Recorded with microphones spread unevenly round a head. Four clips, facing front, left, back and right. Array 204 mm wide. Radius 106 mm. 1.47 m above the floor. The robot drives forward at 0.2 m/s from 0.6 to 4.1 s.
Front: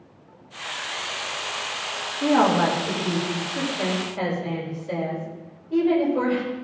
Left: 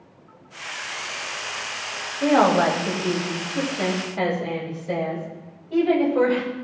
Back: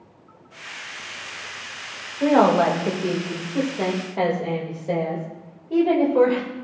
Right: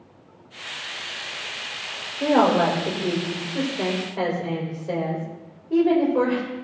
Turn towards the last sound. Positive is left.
turn(degrees=-150)